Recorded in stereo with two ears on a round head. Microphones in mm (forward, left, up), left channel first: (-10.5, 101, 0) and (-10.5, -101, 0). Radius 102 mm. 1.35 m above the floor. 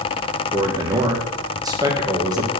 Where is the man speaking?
15° right (ahead or behind), 1.3 m.